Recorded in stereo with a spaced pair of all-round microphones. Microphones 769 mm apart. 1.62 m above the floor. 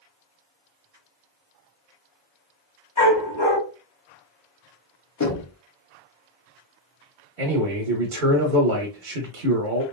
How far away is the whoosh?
I don't hear a whoosh.